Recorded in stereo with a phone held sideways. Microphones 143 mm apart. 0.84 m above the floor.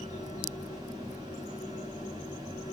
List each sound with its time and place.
0.0 s a fan: 30° right (ahead or behind), 2 m